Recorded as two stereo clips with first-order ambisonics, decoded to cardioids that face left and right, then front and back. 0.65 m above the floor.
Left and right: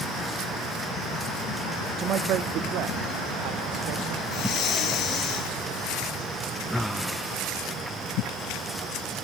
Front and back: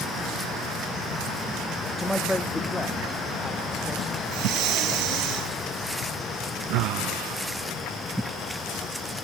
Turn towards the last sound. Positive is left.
turn(degrees=140)